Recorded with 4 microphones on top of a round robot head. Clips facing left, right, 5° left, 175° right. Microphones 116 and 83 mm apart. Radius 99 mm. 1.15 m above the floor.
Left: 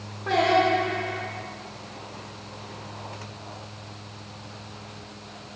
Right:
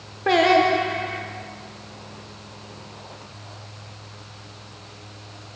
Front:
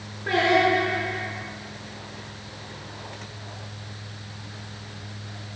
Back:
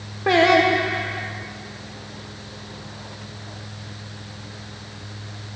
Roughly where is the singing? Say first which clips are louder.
Right 4 dB, back 4 dB; behind right.